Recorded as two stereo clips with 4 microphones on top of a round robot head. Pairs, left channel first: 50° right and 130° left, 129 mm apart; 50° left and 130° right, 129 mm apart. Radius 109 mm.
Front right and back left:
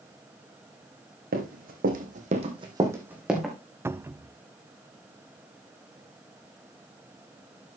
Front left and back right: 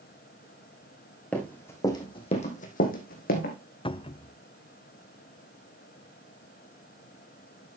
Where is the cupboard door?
70° left, 0.6 m.